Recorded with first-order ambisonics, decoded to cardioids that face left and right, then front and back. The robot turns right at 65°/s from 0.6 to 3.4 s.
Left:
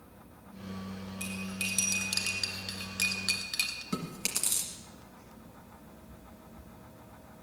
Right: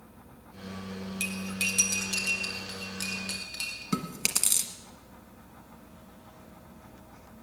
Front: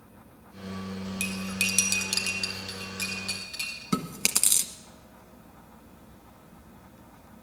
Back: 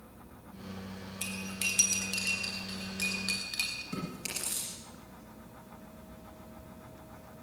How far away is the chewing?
About 1.4 m.